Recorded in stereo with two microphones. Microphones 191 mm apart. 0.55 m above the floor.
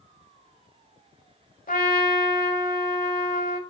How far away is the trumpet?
About 0.9 m.